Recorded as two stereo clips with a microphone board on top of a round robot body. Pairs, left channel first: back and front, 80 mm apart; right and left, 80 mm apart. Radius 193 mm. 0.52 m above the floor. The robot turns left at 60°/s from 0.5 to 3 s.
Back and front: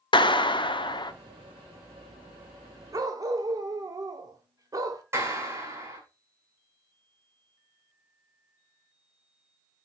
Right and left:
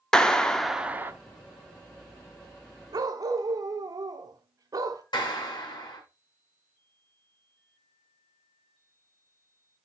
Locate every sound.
0.1 s a clap: 170° right, 1.0 m; by 1.1 s 150° left, 1.0 m
2.9 s a dog barking: 50° left, 1.1 m; by 5.0 s 45° left, 1.1 m
5.1 s a clap: 55° right, 4.5 m